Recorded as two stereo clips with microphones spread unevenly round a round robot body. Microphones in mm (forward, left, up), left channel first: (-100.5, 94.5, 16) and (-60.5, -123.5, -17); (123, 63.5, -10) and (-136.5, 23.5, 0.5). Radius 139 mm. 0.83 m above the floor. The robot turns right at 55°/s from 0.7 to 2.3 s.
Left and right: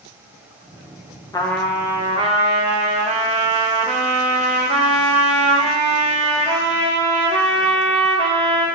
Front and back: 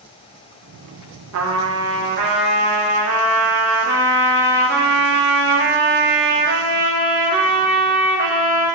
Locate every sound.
1.3 s a trumpet: straight behind, 0.7 m; by 8.7 s 125° right, 0.7 m